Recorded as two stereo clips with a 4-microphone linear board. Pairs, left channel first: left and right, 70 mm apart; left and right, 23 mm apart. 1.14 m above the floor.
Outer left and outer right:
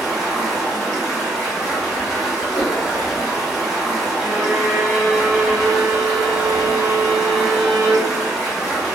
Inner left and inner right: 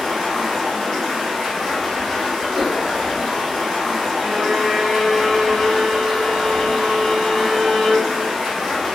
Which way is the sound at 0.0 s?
5° left (ahead or behind).